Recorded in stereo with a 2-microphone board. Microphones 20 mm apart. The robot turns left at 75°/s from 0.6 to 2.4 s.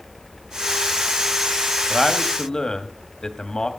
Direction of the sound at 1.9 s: 170° left.